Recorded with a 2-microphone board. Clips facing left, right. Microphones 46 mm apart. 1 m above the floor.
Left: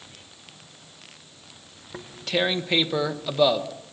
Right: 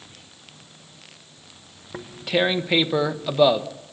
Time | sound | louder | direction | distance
1.9 | tearing paper | right 3 dB | 10° right (ahead or behind) | 1.1 m